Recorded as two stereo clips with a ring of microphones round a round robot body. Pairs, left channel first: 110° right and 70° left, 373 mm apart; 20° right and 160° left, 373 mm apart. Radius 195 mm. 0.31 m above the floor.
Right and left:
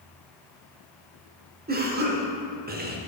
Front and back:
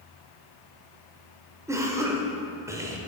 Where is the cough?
85° left, 0.9 m.